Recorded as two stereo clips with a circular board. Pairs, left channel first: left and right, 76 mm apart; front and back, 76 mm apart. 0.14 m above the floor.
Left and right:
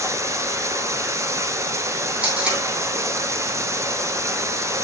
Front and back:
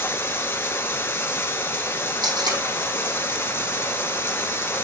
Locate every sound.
0.0 s running water: 55° right, 1.2 m
2.2 s tape being pulled: 165° right, 5 m